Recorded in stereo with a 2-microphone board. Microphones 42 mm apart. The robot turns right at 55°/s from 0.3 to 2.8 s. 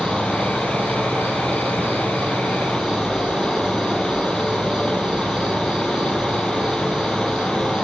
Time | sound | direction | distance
0.0 | an insect | 140° right | 2.5 m